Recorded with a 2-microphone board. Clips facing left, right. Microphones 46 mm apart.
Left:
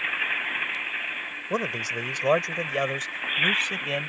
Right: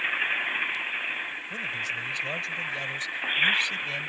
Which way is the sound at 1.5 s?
65° left (ahead or behind).